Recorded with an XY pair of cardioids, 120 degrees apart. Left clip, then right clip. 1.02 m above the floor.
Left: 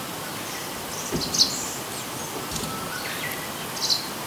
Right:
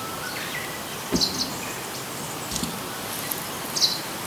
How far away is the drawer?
About 1.0 m.